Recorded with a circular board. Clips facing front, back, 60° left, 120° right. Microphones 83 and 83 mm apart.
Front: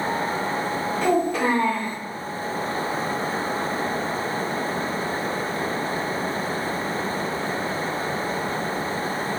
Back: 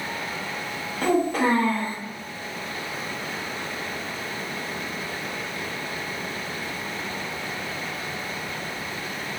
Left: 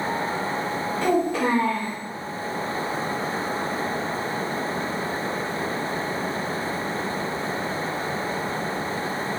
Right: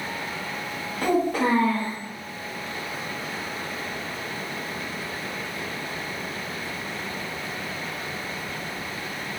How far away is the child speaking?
About 0.9 m.